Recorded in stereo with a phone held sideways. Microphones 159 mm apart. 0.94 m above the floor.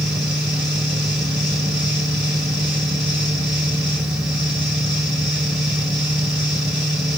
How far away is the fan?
About 1.9 m.